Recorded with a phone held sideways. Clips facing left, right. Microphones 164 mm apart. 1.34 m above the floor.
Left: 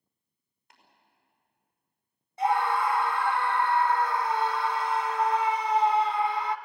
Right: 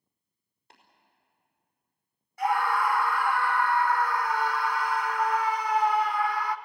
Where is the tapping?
30° right (ahead or behind), 5 m.